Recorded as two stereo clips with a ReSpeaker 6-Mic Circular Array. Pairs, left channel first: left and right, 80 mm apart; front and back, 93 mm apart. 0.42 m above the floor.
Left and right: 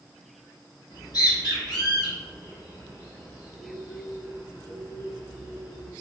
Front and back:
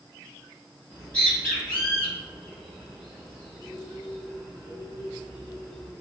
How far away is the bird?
About 1.6 m.